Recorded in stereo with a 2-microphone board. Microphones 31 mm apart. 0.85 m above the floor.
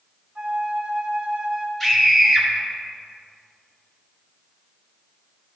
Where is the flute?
20° right (ahead or behind), 1.5 m.